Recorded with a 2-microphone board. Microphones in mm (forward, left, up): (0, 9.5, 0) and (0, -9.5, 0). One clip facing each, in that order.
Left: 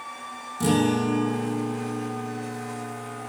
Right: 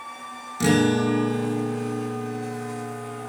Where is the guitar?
50° right (ahead or behind), 1.5 m.